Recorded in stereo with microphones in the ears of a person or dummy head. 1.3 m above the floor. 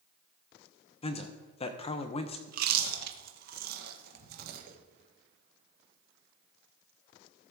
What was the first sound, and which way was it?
A man speaking, 30° left (ahead or behind).